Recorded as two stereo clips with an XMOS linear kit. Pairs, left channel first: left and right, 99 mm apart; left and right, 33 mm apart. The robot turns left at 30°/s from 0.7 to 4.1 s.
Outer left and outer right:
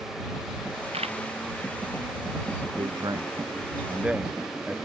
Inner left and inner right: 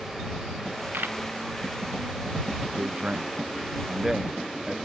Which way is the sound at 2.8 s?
50° right (ahead or behind).